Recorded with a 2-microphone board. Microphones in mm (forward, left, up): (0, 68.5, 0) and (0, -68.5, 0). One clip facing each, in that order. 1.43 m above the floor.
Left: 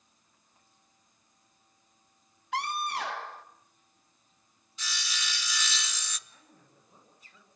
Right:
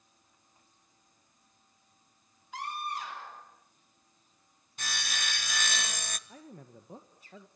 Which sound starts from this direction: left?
A scream, at 2.5 s.